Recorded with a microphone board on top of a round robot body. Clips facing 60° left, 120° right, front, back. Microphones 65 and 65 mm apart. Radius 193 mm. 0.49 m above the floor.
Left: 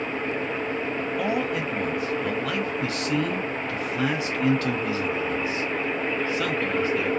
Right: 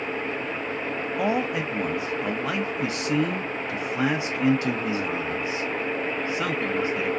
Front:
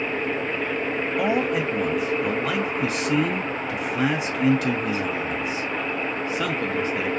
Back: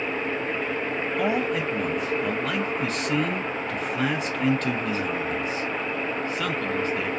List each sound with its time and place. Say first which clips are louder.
1.2 s a man speaking: right 2 dB, front 2 dB; 75° right, 0.7 m